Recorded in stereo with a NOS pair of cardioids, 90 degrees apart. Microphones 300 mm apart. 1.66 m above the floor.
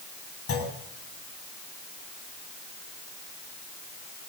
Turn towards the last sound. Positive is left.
turn(degrees=50)